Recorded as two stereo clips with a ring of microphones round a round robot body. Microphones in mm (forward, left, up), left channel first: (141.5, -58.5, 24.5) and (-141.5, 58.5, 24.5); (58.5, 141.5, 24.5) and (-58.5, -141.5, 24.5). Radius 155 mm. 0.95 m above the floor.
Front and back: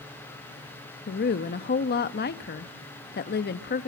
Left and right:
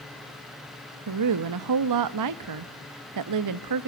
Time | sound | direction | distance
1.1 | a woman speaking | 80° right | 1.0 m